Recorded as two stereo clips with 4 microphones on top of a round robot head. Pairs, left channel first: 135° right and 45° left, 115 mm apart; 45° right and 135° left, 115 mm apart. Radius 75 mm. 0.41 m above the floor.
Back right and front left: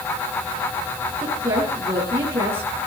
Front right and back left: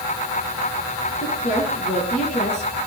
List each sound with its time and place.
1.2 s a woman speaking: 25° right, 6.5 m